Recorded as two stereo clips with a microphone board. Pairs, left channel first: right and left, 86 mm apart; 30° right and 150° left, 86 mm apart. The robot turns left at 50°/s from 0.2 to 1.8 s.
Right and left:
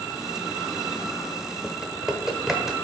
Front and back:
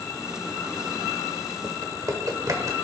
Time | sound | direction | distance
1.6 | typing on a keyboard | straight behind | 1.2 m